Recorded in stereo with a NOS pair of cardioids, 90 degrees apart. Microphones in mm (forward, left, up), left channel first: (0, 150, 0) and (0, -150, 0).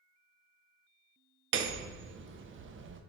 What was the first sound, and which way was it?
Hammering, 40° right.